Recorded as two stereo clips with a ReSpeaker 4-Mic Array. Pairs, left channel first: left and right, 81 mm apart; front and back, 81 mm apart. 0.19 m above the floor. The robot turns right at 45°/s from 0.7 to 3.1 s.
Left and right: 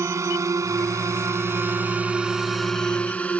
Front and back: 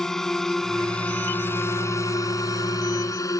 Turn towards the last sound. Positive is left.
turn(degrees=20)